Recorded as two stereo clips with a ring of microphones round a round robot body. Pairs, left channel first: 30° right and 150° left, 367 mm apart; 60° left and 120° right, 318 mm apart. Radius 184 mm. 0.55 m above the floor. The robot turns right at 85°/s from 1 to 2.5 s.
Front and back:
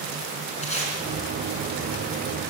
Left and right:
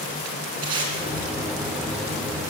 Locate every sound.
0.6 s tape being pulled: 105° right, 3 m